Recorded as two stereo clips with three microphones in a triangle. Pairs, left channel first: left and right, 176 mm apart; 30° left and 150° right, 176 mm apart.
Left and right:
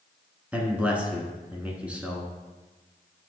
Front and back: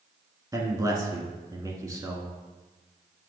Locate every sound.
0.5 s a man speaking: 155° right, 1.2 m